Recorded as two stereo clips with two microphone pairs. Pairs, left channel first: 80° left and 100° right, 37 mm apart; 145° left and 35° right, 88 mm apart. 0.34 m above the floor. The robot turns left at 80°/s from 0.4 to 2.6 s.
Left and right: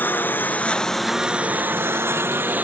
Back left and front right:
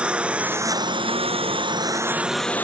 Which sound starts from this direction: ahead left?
A lawn mower, at 0.0 s.